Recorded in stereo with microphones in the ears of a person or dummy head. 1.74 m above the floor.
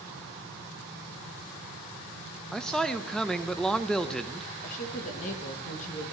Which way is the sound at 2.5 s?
5° left (ahead or behind).